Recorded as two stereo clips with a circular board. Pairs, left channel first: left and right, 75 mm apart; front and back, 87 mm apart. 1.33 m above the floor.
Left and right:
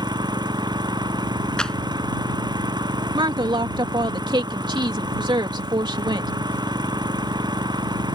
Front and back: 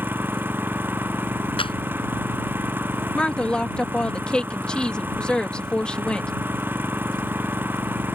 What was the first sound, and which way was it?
An engine running, 110° right.